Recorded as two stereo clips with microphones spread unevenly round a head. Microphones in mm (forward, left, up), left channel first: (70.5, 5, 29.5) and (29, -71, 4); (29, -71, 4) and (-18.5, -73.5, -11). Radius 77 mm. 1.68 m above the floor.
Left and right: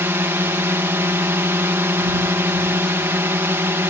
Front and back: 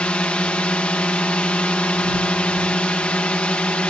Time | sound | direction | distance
0.0 | a drone | 60° right | ?